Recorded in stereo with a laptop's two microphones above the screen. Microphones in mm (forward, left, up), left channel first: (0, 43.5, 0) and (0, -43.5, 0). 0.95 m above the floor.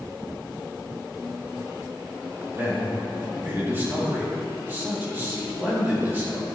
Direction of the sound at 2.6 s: 25° right (ahead or behind).